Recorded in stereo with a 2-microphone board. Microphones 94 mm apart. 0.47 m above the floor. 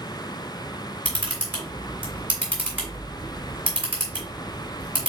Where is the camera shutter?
20° right (ahead or behind), 2.5 m.